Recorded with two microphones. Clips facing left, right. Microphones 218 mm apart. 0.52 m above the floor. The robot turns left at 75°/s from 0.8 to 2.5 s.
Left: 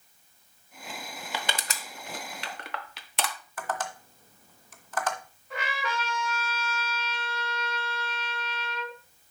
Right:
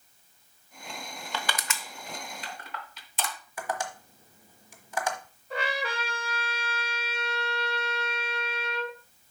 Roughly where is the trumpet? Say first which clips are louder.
Right 2 dB; right.